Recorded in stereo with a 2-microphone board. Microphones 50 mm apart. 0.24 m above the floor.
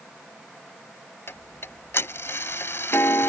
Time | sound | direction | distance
1.3 | ticking | 60° left (ahead or behind) | ?